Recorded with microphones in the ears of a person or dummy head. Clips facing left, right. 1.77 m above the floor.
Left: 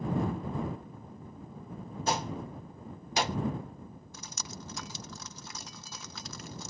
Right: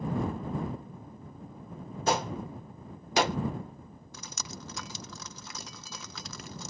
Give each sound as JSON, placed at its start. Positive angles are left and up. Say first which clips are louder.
{"t": 2.1, "sound": "a gunshot", "louder": "right 4 dB", "side_deg": -45}
{"t": 4.1, "sound": "dripping", "louder": "right 3 dB", "side_deg": -65}